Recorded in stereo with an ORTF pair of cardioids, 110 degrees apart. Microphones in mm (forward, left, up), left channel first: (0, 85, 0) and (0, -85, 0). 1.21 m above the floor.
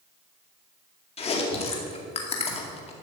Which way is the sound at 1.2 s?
35° left.